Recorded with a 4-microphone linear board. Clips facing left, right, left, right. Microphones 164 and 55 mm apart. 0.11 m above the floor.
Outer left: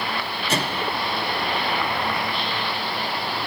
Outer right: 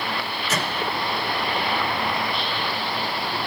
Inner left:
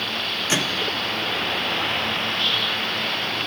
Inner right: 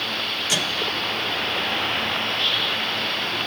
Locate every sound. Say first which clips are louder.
0.5 s a microwave: outer left 2 dB, inner left 2 dB; 30° left (ahead or behind), 1.0 m